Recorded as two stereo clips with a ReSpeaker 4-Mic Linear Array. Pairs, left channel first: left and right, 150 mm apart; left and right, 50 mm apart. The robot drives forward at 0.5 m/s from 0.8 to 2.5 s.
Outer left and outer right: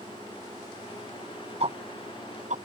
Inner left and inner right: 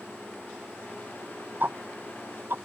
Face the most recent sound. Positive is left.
turn(degrees=-55)  # may be behind; listen again after turning